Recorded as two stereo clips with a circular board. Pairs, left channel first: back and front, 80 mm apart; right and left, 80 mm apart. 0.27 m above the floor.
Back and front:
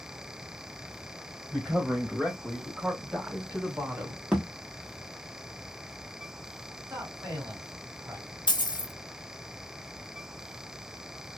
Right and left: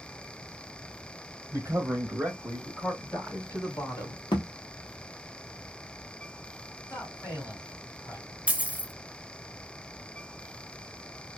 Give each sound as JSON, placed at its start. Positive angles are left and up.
{"t": 1.5, "sound": "a man speaking", "azimuth_deg": 95, "distance_m": 1.4}
{"t": 4.3, "sound": "a thud", "azimuth_deg": -85, "distance_m": 1.0}
{"t": 6.9, "sound": "a man speaking", "azimuth_deg": -35, "distance_m": 2.0}
{"t": 8.5, "sound": "a dropped coin", "azimuth_deg": 160, "distance_m": 0.6}